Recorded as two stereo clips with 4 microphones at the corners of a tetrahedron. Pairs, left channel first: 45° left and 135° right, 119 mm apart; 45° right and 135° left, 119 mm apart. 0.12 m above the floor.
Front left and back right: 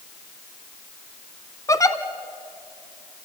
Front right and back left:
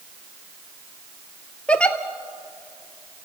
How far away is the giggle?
About 1.1 m.